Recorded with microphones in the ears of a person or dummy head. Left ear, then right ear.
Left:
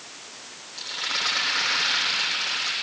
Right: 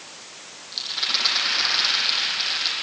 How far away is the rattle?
About 7.5 m.